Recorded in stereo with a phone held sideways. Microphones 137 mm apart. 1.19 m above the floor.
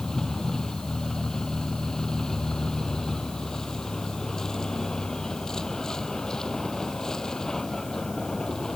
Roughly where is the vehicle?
Centre.